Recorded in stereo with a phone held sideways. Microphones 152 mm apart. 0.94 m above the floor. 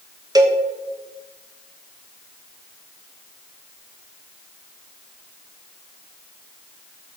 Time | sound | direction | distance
0.3 | a cowbell | 25° right (ahead or behind) | 1.1 m